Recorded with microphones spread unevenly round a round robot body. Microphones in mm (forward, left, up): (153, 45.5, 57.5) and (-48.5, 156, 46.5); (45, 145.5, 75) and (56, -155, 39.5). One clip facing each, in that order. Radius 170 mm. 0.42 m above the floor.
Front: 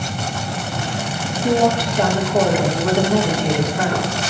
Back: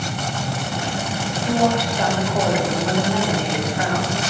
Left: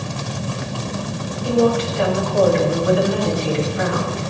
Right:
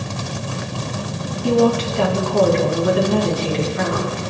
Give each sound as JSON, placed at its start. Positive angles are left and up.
{"t": 1.4, "sound": "a woman speaking", "azimuth_deg": -80, "distance_m": 4.5}